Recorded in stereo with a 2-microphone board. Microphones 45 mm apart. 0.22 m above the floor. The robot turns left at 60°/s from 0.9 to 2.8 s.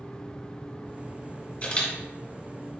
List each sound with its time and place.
1.6 s a camera shutter: 30° left (ahead or behind), 1.3 m; by 1.9 s 15° left (ahead or behind), 1.3 m